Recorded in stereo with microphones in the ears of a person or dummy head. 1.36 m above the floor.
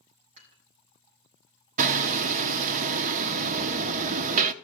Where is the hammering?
40° right (ahead or behind), 0.8 m.